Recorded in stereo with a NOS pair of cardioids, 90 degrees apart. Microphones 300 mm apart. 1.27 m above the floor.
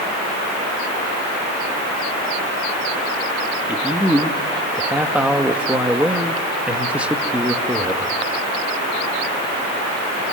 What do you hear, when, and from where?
3.7 s a man speaking: 5° right, 2 m